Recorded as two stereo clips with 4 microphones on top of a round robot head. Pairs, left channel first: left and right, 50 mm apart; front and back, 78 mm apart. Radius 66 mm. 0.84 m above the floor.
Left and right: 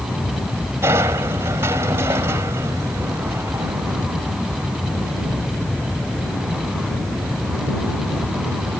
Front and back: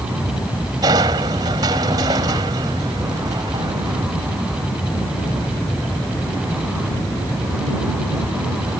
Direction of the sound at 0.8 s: 135° right.